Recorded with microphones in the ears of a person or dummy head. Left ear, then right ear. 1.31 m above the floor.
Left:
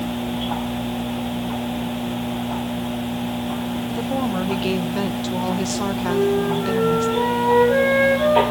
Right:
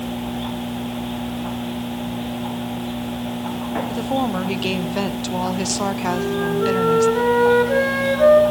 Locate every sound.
3.9 s a woman speaking: 20° right (ahead or behind), 0.6 m
6.1 s a flute: 60° right (ahead or behind), 8.5 m